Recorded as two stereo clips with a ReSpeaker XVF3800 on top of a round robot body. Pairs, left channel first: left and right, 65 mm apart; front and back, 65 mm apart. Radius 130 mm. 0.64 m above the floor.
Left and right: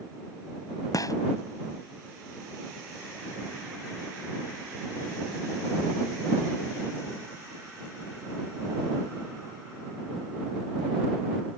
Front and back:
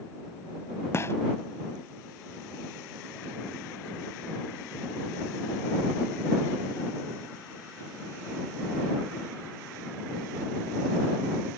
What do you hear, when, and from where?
0.9 s a gunshot: 55° left